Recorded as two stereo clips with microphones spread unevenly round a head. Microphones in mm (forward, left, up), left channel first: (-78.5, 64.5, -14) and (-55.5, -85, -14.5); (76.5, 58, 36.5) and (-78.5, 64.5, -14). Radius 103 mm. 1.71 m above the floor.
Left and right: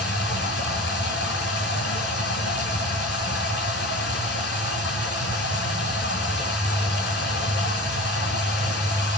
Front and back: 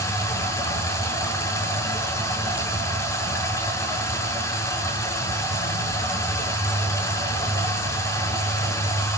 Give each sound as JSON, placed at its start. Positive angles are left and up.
{"t": 0.0, "sound": "running water", "azimuth_deg": 65, "distance_m": 6.5}